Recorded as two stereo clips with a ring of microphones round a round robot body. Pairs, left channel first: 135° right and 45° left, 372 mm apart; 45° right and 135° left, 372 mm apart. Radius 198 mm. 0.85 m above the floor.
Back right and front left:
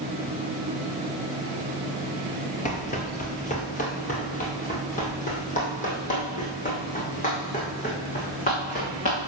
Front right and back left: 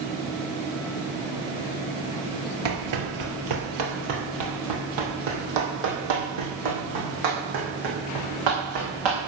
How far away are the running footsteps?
About 1.2 m.